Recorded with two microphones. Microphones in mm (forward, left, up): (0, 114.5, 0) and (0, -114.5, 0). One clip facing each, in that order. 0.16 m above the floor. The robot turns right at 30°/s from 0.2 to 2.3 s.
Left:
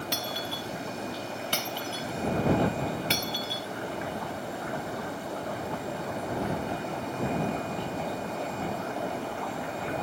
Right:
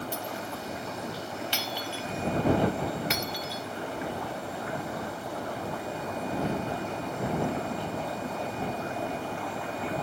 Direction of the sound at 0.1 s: 85° left.